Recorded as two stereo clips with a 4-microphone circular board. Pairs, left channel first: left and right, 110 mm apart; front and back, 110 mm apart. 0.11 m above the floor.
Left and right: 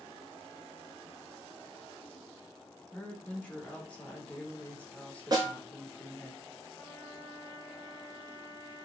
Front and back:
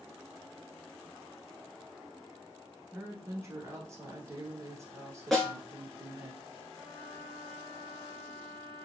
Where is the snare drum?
85° right, 1.2 m.